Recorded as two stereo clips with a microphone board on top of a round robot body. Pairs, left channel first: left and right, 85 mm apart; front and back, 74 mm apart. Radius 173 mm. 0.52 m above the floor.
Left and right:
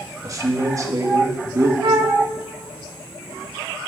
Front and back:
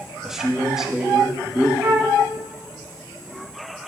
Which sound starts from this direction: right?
A man speaking, at 0.2 s.